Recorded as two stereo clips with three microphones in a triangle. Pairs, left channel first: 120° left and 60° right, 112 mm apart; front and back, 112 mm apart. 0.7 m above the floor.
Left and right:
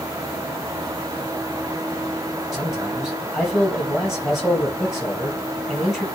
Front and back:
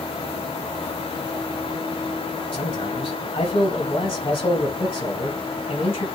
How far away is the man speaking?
About 4.5 m.